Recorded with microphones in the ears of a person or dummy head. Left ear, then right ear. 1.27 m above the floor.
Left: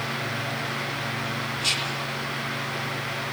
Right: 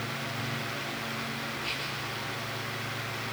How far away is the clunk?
I don't hear a clunk.